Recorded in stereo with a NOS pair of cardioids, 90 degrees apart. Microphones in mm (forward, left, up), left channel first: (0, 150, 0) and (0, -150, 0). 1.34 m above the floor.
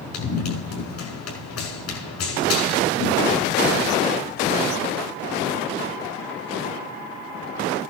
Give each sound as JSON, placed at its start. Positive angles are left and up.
{"t": 0.1, "sound": "running footsteps", "azimuth_deg": 60, "distance_m": 6.5}